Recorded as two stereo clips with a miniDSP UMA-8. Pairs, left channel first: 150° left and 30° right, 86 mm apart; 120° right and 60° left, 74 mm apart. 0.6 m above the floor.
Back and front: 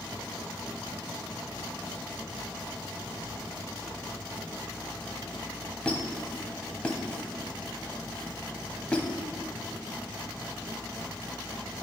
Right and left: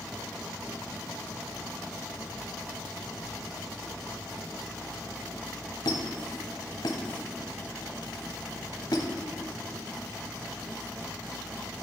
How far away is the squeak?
About 0.8 m.